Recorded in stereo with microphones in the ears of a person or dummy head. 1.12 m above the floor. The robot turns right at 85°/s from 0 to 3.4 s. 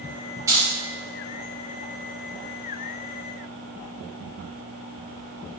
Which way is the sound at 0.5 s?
20° right (ahead or behind).